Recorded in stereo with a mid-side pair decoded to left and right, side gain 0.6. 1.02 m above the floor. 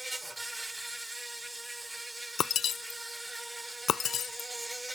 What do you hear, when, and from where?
0.0 s an insect: 5° right
2.4 s breaking glass: 45° left